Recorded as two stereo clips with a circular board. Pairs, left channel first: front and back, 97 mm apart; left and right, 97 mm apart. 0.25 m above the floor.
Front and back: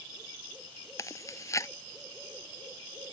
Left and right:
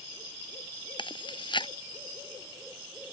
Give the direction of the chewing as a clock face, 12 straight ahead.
10 o'clock.